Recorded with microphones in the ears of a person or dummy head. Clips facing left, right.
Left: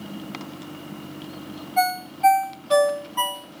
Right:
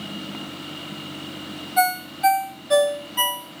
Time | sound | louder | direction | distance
1.8 | a ringtone | even | 10° right (ahead or behind) | 0.6 m